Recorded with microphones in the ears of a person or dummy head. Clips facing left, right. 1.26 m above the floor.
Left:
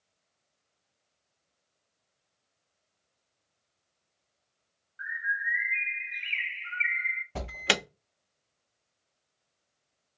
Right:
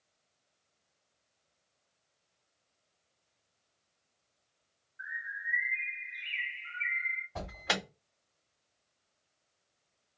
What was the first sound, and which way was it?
A bird, 75° left (ahead or behind).